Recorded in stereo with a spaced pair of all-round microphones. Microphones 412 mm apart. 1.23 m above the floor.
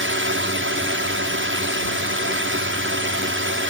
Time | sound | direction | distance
0.0 | a drone | 30° right (ahead or behind) | ?